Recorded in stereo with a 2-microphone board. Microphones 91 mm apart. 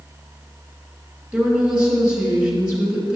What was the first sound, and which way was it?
A woman speaking, 10° right (ahead or behind).